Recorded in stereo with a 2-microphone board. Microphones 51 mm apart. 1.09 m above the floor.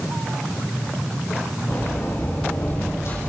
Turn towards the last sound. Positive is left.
turn(degrees=55)  # may be behind; listen again after turning